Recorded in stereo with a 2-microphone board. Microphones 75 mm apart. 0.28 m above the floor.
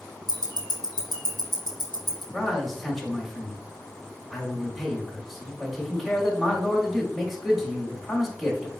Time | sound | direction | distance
0.3 | ticking | 70° right (ahead or behind) | 1.0 m
2.3 | a man speaking | centre (ahead or behind) | 1.1 m